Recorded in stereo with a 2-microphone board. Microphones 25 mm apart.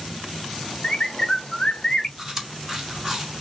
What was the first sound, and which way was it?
A bird, 30° left (ahead or behind).